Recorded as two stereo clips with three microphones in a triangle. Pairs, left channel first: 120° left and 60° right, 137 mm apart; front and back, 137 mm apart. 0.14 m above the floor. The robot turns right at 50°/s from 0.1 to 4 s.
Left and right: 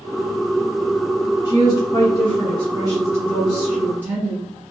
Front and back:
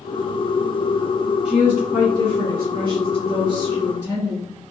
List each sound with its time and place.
1.4 s a woman speaking: 115° left, 1.3 m; by 4.5 s 115° right, 1.3 m